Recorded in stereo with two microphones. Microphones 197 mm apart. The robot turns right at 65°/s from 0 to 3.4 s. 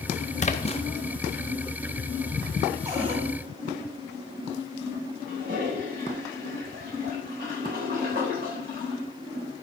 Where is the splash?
35° left (ahead or behind), 0.7 m; by 0.8 s 30° left (ahead or behind), 0.7 m.